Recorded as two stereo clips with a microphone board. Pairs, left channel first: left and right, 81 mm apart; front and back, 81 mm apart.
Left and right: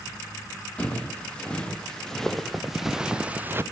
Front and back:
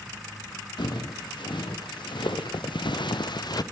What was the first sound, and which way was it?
Footsteps, 15° left.